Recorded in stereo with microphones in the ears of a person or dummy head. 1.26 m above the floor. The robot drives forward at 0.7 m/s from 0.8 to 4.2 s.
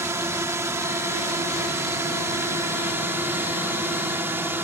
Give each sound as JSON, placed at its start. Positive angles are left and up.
{"t": 0.0, "sound": "a drone", "side_deg": -10}